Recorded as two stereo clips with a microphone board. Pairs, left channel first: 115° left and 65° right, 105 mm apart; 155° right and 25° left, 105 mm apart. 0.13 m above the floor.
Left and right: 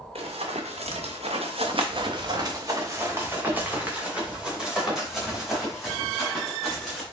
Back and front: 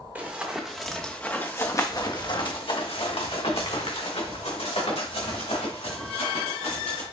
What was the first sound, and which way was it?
Running footsteps, 50° right.